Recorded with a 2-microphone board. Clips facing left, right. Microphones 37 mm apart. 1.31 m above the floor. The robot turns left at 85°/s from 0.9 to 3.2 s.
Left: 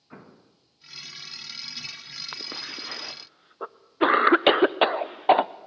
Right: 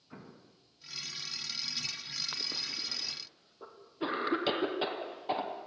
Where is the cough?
20° left (ahead or behind), 0.7 m; by 5.5 s 65° left (ahead or behind), 0.7 m.